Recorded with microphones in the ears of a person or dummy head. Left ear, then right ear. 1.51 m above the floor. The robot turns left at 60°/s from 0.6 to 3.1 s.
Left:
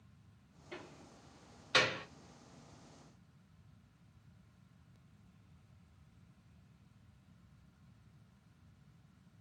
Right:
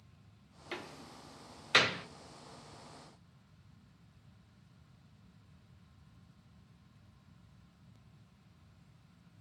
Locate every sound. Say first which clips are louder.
0.7 s a door slam: right 6 dB; 60° right (ahead or behind), 0.5 m; by 2.0 s centre (ahead or behind), 0.5 m